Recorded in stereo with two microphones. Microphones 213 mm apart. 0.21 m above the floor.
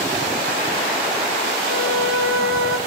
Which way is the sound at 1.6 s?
80° right.